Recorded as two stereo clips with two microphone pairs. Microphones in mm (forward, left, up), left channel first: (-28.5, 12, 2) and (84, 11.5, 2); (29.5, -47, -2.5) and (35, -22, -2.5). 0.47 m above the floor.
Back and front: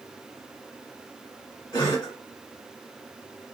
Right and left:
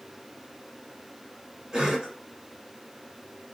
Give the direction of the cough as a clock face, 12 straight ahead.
8 o'clock.